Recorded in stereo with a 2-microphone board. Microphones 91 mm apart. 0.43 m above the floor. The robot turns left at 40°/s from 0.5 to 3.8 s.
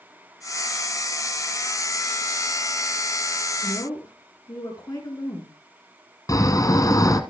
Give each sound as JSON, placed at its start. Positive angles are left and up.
{"t": 3.6, "sound": "a woman speaking", "side_deg": 45, "distance_m": 5.0}
{"t": 6.3, "sound": "snoring", "side_deg": 45, "distance_m": 1.6}